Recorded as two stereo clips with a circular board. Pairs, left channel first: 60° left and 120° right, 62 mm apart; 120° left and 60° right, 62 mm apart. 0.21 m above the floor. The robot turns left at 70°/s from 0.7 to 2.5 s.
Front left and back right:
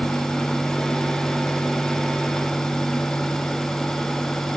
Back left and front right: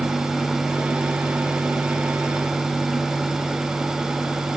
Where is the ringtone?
I don't hear a ringtone.